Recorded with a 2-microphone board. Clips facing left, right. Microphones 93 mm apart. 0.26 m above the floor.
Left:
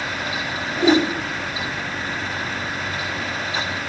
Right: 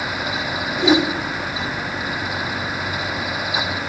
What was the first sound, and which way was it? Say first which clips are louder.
A whoosh: even; 5° left (ahead or behind).